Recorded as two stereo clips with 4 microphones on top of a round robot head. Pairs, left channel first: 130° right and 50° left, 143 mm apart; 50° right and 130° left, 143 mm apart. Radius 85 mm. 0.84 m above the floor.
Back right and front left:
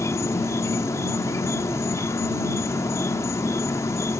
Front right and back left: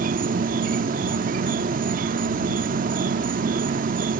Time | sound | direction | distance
0.0 | an insect | 160° left | ?